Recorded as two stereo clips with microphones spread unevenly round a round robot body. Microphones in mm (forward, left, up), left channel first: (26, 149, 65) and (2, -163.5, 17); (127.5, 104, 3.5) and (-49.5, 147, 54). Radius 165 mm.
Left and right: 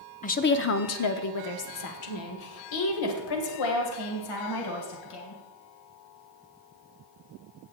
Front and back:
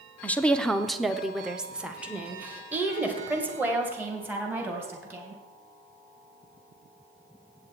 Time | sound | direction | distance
0.2 | a woman speaking | 25° left | 0.8 m